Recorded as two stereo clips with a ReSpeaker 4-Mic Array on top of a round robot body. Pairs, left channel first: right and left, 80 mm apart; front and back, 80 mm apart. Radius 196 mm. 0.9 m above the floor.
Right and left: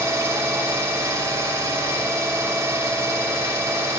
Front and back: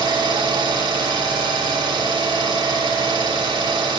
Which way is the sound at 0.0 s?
150° left.